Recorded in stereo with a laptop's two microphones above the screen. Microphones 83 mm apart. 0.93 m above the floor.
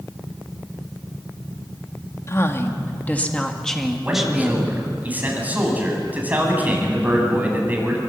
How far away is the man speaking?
About 8.5 m.